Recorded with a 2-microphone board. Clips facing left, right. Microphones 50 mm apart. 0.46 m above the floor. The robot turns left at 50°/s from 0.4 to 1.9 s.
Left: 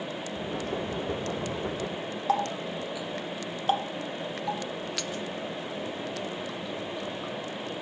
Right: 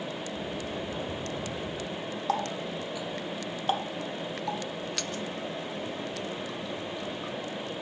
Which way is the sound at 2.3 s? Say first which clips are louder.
Left 3 dB; 5° left (ahead or behind).